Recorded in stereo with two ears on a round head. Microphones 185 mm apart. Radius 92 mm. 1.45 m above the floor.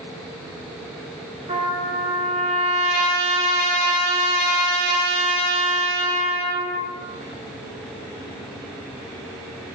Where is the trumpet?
25° right (ahead or behind), 0.8 m.